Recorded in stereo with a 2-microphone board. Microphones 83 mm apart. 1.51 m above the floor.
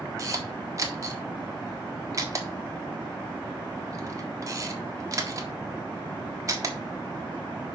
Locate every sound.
0.2 s a camera shutter: 35° right (ahead or behind), 1.5 m